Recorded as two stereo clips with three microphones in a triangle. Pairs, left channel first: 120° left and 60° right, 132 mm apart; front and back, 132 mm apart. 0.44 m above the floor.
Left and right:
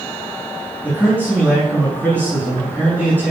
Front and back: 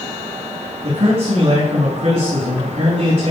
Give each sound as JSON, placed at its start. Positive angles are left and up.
{"t": 0.8, "sound": "a man speaking", "azimuth_deg": -160, "distance_m": 4.5}